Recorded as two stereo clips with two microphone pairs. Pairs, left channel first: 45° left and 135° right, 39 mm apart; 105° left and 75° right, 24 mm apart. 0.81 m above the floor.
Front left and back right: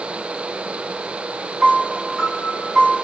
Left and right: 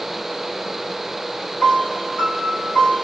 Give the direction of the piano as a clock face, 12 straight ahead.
8 o'clock.